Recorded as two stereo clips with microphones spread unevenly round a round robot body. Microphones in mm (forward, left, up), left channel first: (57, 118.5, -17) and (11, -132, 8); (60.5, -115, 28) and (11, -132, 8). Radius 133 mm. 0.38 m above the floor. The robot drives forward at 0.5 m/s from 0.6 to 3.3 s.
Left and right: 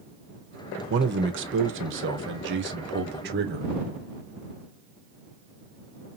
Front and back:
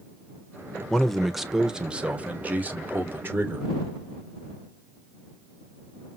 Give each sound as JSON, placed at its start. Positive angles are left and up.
{"t": 0.9, "sound": "a man speaking", "azimuth_deg": -85, "distance_m": 1.0}